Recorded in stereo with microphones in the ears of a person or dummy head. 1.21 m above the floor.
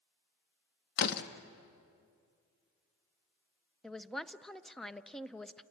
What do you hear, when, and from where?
1.0 s a door slam: 55° left (ahead or behind), 1.1 m
3.8 s a man speaking: centre (ahead or behind), 0.5 m